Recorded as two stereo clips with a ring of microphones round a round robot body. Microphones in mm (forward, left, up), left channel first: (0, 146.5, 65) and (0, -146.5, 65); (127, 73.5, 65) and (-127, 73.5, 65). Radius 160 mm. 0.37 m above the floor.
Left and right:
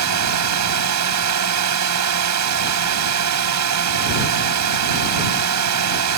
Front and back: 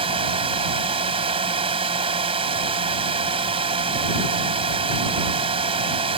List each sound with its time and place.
0.0 s a drone: 110° right